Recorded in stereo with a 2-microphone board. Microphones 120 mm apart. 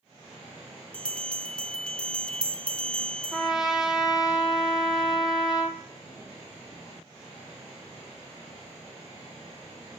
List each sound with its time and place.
0.9 s a bell: 10° left (ahead or behind), 0.7 m
3.3 s a trumpet: 5° right (ahead or behind), 1.3 m